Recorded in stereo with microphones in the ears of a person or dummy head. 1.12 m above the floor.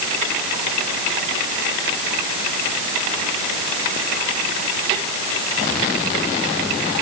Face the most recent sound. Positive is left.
No sound to turn to.